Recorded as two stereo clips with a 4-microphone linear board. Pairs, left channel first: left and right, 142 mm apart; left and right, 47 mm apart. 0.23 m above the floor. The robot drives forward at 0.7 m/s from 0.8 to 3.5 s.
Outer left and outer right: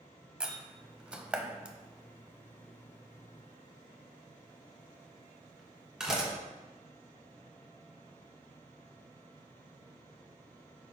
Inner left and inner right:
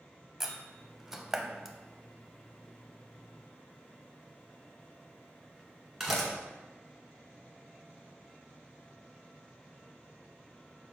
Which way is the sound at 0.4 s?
5° right (ahead or behind).